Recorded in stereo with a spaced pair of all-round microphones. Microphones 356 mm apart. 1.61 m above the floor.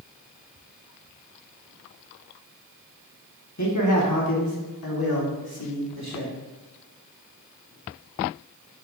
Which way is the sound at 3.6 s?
50° left (ahead or behind).